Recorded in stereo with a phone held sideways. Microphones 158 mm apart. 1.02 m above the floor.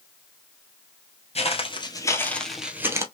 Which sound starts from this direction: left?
Footsteps, at 1.4 s.